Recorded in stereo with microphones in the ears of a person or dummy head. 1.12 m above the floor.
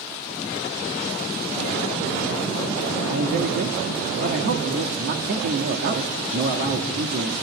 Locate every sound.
3.1 s a man speaking: 55° right (ahead or behind), 1.7 m